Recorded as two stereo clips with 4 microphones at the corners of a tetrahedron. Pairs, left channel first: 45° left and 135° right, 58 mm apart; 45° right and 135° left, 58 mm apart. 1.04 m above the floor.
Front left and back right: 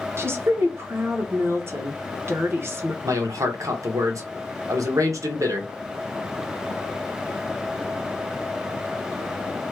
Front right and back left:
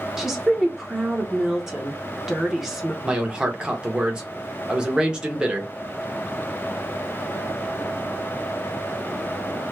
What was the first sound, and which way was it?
A woman speaking, 145° right.